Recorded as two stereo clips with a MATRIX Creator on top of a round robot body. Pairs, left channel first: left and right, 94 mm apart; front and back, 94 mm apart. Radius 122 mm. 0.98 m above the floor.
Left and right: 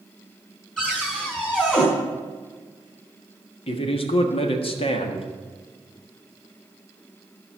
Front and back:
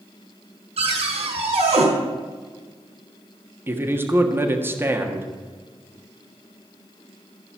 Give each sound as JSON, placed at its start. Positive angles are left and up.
{"t": 0.8, "sound": "a cupboard door", "azimuth_deg": 175, "distance_m": 4.5}
{"t": 3.7, "sound": "a man speaking", "azimuth_deg": 115, "distance_m": 1.5}